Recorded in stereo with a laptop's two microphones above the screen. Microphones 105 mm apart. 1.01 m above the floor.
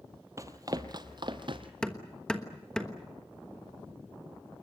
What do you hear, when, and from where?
0.4 s running footsteps: 30° right (ahead or behind), 1.1 m; by 1.7 s 50° right (ahead or behind), 1.6 m
1.8 s hammering: 10° left (ahead or behind), 1.2 m